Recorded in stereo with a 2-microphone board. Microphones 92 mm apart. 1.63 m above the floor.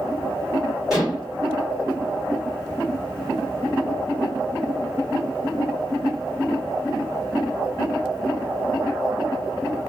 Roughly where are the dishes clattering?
Centre.